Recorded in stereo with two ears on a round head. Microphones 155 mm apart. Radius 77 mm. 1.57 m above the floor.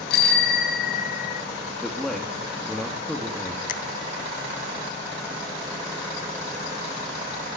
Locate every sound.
0.1 s a bicycle bell: 65° left (ahead or behind), 3 m; by 1.4 s 40° left (ahead or behind), 1.5 m
1.8 s a man speaking: centre (ahead or behind), 2.5 m
3.7 s a finger snap: 50° left (ahead or behind), 1.6 m